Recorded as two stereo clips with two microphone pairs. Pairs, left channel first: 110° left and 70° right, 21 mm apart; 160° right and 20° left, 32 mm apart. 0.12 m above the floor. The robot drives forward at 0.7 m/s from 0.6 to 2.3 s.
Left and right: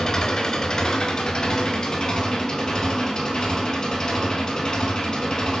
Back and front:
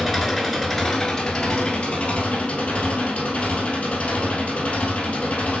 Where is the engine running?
125° left, 0.8 m; by 5.6 s 165° left, 1.6 m.